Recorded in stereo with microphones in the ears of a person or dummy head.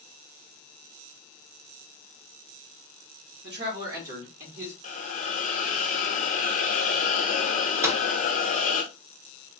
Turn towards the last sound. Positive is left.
turn(degrees=-10)  # may be behind; listen again after turning